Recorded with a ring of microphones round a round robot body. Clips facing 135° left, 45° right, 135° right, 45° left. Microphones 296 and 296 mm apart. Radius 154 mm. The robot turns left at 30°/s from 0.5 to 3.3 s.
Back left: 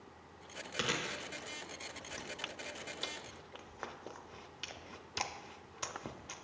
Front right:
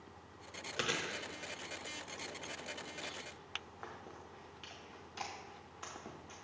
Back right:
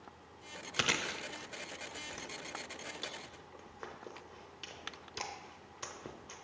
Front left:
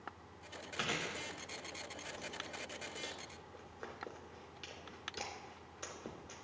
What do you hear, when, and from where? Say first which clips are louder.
0.8 s chewing: back left 1 dB, back right 3 dB; 140° right, 0.6 m; by 6.5 s 145° left, 0.6 m